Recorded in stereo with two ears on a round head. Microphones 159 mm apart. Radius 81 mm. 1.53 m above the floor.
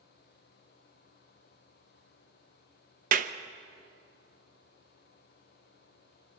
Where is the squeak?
No squeak in this recording.